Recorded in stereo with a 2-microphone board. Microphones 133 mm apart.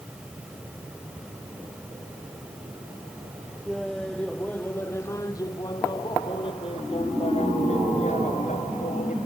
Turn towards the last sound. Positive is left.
turn(degrees=70)  # may be behind; listen again after turning